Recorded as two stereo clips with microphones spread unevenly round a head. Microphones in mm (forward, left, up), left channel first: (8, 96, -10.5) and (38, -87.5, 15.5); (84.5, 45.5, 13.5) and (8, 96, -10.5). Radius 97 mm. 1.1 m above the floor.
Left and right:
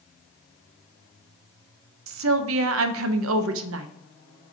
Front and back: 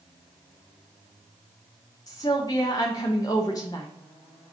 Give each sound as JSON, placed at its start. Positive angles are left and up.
{"t": 2.1, "sound": "a woman speaking", "azimuth_deg": -105, "distance_m": 0.5}